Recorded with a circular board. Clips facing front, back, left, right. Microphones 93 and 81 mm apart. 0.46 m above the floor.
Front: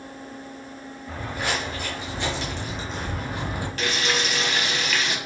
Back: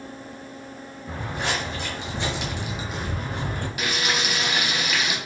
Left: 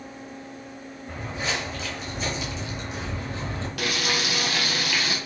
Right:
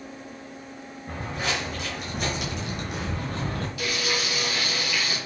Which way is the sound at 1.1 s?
120° right.